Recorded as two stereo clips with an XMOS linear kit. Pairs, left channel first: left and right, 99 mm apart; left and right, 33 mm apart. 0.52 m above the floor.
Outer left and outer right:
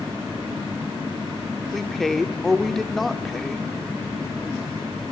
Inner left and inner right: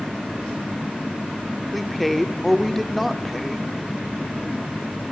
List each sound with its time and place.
1.7 s a woman speaking: centre (ahead or behind), 1.4 m